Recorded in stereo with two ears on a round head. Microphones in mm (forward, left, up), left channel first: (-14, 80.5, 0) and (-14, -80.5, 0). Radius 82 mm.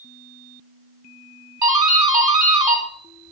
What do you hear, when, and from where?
1.6 s a doorbell: 20° right (ahead or behind), 1.5 m